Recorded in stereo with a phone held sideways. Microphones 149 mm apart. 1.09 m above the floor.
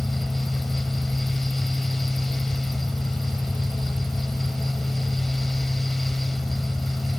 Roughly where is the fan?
Centre.